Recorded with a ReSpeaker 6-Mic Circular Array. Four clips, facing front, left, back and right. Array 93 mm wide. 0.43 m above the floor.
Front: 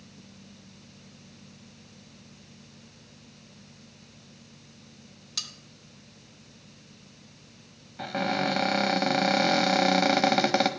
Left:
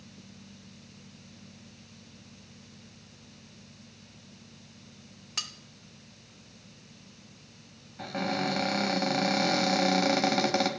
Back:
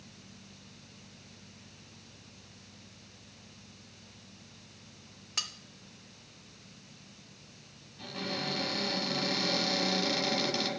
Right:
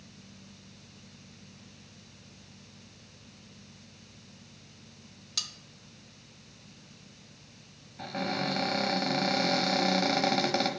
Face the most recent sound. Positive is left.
turn(degrees=5)